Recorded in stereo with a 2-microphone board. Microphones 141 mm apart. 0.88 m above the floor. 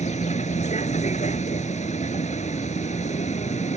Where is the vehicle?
60° left (ahead or behind).